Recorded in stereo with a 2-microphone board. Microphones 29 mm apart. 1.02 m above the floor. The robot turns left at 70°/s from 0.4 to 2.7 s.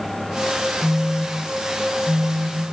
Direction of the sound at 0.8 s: 30° left.